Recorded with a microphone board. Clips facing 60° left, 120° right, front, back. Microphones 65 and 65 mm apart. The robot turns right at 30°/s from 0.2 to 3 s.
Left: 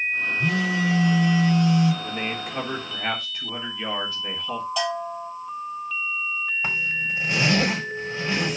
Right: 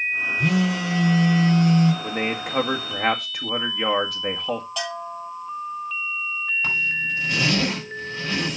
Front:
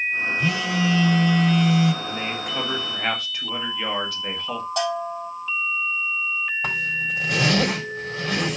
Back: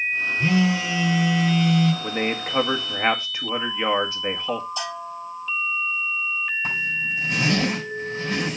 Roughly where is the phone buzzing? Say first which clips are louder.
Right 2 dB, back 5 dB; behind right.